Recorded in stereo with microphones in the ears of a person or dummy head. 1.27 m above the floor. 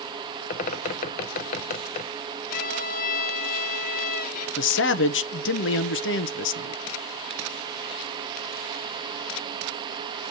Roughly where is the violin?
Left.